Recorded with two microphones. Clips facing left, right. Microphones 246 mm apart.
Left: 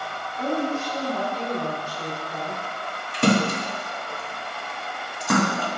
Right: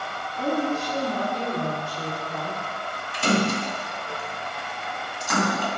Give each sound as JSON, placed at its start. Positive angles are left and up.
{"t": 0.4, "sound": "a woman speaking", "side_deg": -30, "distance_m": 1.6}
{"t": 3.1, "sound": "a splash", "side_deg": 60, "distance_m": 0.9}